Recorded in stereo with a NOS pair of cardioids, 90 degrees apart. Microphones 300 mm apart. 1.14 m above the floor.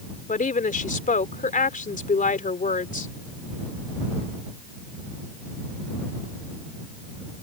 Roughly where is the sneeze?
I don't hear a sneeze.